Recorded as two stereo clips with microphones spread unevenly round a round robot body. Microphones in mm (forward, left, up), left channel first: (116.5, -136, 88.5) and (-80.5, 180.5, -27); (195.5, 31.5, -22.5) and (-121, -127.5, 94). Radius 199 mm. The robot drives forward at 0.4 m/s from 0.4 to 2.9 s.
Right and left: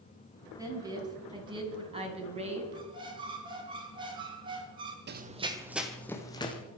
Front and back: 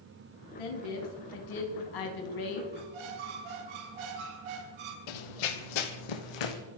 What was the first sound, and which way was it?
A woman speaking, 45° left.